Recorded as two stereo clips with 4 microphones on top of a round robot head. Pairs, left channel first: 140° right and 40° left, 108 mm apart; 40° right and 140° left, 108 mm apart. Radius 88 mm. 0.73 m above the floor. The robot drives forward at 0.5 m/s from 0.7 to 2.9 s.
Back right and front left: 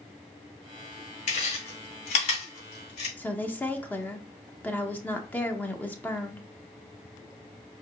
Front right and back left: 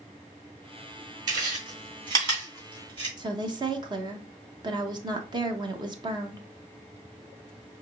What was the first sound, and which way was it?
Chewing, 165° right.